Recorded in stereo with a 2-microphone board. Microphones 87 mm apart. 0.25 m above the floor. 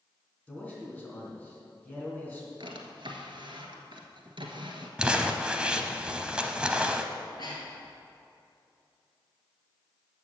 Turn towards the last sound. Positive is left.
turn(degrees=60)  # may be behind; listen again after turning